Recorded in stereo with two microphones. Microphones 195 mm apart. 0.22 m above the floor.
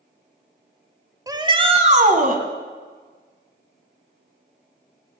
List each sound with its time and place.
1.3 s a shout: 20° right (ahead or behind), 1.5 m; by 2.4 s 45° right (ahead or behind), 1.9 m